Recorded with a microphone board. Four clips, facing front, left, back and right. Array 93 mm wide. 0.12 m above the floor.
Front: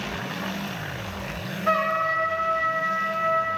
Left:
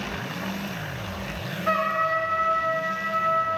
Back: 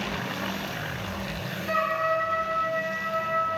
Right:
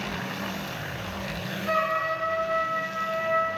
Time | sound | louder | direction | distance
1.7 | a trumpet | left 2 dB, front 2 dB | 35° left | 3.5 m